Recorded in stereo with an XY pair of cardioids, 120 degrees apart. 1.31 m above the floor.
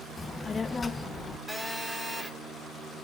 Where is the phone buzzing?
5° left, 4 m.